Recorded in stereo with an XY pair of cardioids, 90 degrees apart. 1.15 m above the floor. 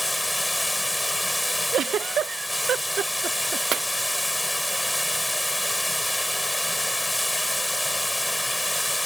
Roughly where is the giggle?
Ahead right.